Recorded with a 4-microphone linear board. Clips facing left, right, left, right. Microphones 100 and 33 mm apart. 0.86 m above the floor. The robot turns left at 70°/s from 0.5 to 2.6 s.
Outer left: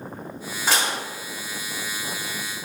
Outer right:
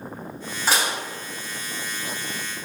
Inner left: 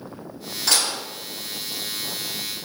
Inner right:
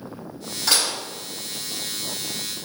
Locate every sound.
0.7 s dishes clattering: 5° right (ahead or behind), 1.3 m; by 1.0 s 25° right (ahead or behind), 1.3 m